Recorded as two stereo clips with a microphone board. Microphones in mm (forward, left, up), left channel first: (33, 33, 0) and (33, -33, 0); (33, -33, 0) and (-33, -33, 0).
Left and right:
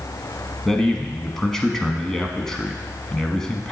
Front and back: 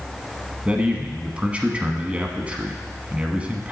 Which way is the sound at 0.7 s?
160° left.